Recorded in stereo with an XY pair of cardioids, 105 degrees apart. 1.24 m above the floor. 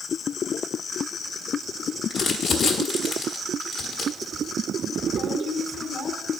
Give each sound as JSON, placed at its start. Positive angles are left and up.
{"t": 2.1, "sound": "crumpling", "azimuth_deg": 65, "distance_m": 1.3}